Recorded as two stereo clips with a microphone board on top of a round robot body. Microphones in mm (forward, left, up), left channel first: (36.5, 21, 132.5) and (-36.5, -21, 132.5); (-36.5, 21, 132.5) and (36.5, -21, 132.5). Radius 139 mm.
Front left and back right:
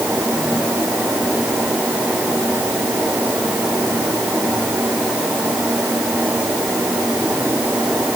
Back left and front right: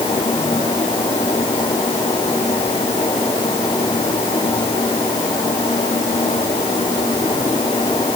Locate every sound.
Only background noise.